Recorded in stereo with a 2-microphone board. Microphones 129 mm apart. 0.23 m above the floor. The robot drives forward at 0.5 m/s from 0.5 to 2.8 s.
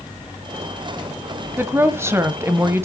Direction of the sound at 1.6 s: 20° right (ahead or behind).